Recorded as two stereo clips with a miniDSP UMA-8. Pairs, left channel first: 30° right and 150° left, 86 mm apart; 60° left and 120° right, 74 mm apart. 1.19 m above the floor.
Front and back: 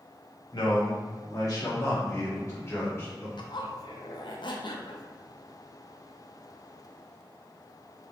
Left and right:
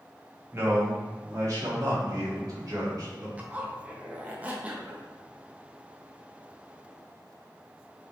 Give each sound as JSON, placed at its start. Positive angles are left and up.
{"t": 0.5, "sound": "a man speaking", "azimuth_deg": -65, "distance_m": 1.4}
{"t": 3.4, "sound": "a zipper", "azimuth_deg": -50, "distance_m": 0.6}